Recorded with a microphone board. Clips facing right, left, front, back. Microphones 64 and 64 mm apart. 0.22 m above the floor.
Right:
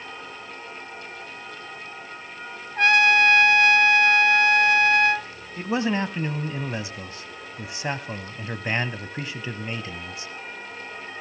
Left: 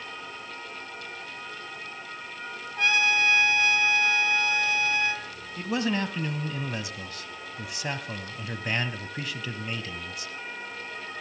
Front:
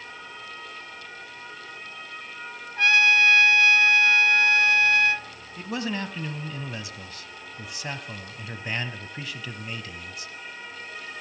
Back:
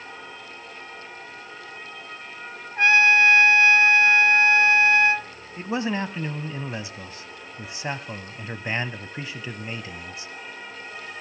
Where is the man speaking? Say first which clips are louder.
Right 3 dB, back 4 dB; 135° right, 1.1 m.